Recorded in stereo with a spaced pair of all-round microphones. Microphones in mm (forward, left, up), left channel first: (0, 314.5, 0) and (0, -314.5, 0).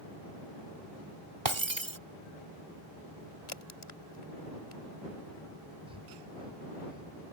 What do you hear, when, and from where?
1.4 s breaking glass: 45° right (ahead or behind)
3.5 s a crack: 50° left (ahead or behind)
5.9 s breathing: 10° right (ahead or behind)